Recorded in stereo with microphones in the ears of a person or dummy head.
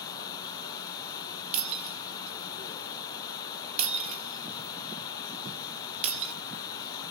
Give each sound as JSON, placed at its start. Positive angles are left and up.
{"t": 0.0, "sound": "running water", "side_deg": 25, "distance_m": 2.0}
{"t": 1.5, "sound": "breaking glass", "side_deg": -35, "distance_m": 1.6}